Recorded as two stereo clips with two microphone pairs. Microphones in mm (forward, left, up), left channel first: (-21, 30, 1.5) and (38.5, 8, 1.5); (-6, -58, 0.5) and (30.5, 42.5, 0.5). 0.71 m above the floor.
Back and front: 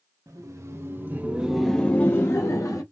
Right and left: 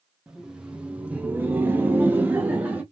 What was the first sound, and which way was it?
Laughter, 15° right.